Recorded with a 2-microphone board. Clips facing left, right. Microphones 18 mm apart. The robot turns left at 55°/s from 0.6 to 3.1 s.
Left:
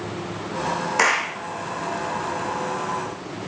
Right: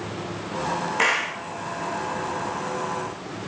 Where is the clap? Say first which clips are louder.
Left 2 dB; 60° left (ahead or behind), 4.5 m; by 1.3 s 40° left (ahead or behind), 4.5 m.